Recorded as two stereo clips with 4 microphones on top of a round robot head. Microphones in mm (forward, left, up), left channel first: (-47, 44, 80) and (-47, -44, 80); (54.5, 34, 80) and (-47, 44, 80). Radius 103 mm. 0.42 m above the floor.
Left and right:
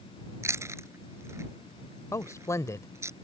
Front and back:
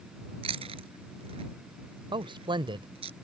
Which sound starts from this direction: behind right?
Chewing, at 0.4 s.